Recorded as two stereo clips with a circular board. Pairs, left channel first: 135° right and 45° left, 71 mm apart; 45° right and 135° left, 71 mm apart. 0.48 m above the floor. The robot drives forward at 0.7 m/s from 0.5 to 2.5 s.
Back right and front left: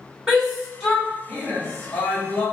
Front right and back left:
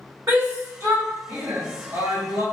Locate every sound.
0.3 s a shout: 120° left, 1.0 m; by 2.4 s 165° left, 1.9 m